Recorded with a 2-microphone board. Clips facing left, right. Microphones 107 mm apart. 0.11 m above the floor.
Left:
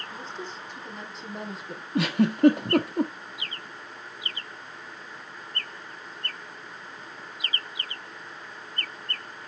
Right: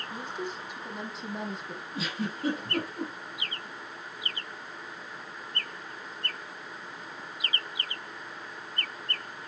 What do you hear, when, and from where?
0.1 s a woman speaking: 15° right (ahead or behind), 3.5 m; by 1.9 s 5° left (ahead or behind), 3 m
1.9 s a giggle: 70° left (ahead or behind), 1.3 m